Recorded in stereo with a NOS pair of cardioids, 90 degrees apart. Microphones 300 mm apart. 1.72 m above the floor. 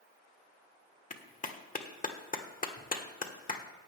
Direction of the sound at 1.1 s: 25° left.